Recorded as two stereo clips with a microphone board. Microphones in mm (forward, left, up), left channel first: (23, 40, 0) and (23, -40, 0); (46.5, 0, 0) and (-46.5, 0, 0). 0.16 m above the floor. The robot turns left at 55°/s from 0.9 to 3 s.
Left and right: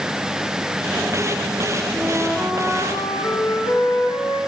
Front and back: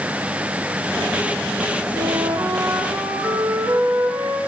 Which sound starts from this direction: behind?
A flute, at 1.9 s.